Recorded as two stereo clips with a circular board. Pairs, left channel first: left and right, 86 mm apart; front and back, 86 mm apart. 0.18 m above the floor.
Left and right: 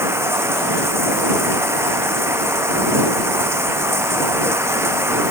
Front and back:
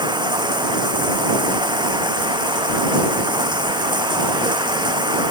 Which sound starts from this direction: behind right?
Running water, at 0.0 s.